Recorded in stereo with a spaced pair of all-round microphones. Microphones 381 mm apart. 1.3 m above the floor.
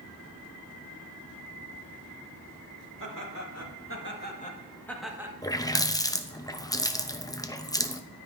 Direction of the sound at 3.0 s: 55° left (ahead or behind).